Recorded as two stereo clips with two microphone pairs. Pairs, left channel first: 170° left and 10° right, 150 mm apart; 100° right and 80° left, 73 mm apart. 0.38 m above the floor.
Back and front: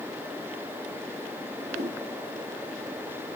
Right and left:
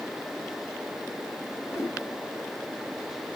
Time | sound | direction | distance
1.7 | a whoosh | 55° right | 3 m